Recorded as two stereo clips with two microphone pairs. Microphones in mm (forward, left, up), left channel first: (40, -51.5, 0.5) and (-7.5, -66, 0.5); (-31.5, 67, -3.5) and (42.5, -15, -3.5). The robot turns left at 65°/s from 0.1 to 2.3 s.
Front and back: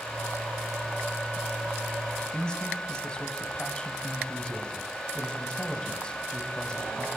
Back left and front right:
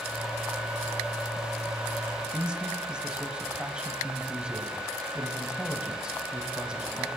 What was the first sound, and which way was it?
A man speaking, 20° left.